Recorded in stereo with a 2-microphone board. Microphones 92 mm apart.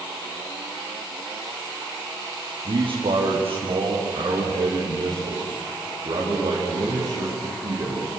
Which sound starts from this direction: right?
A man speaking, at 2.6 s.